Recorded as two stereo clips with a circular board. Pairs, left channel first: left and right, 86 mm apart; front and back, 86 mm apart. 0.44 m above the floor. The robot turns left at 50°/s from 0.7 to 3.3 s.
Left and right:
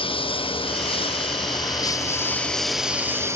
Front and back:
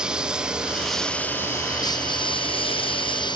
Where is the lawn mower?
100° left; by 3.4 s 30° right.